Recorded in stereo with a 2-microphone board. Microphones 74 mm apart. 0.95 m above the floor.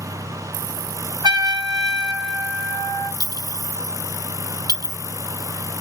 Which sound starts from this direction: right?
A trumpet, at 1.2 s.